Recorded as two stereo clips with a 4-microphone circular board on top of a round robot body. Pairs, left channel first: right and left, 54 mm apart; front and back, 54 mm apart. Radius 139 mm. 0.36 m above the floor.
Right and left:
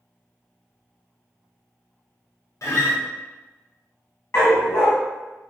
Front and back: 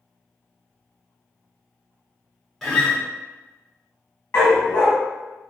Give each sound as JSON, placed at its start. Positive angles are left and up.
{"t": 2.6, "sound": "a guitar", "azimuth_deg": -80, "distance_m": 1.3}
{"t": 4.3, "sound": "a dog barking", "azimuth_deg": -45, "distance_m": 0.7}